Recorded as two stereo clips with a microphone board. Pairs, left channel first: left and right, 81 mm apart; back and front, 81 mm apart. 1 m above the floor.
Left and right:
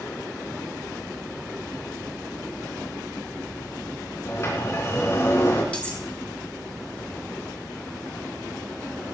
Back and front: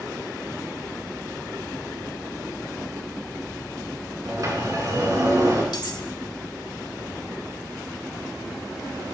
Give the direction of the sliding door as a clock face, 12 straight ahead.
11 o'clock.